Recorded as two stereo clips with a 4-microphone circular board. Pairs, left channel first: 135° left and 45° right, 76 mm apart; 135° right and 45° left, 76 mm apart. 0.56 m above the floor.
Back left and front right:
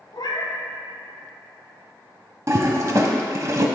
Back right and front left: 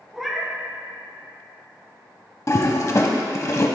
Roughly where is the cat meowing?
Behind left.